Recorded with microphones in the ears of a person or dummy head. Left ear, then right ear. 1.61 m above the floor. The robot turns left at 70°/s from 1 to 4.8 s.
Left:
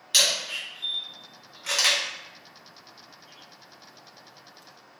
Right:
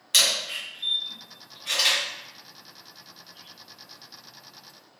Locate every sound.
0.1 s a camera shutter: 5° right (ahead or behind), 0.8 m; by 2.0 s 60° left (ahead or behind), 0.8 m